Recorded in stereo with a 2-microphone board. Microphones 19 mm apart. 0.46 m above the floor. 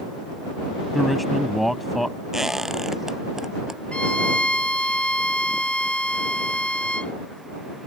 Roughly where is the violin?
Left.